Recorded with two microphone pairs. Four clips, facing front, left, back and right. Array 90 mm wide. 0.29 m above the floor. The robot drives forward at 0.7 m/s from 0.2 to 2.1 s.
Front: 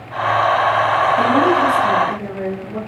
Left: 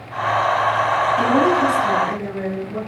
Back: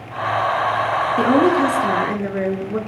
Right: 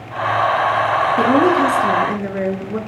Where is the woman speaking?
125° right, 3.5 m; by 2.8 s 135° right, 4 m.